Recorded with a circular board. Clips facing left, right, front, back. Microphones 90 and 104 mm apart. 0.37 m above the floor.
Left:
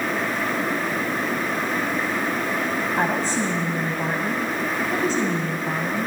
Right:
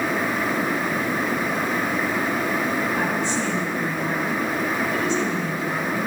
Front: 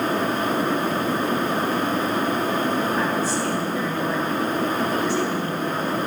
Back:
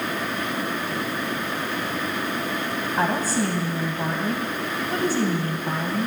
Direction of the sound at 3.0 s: 140° left.